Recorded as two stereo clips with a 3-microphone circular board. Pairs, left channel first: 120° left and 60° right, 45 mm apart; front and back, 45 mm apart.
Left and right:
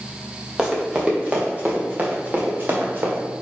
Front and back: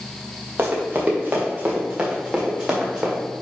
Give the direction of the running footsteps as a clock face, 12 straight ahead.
5 o'clock.